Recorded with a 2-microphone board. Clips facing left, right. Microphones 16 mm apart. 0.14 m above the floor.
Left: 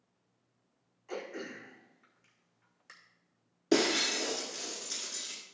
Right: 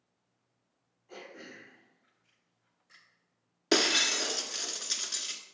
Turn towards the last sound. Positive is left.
turn(degrees=-45)  # may be behind; listen again after turning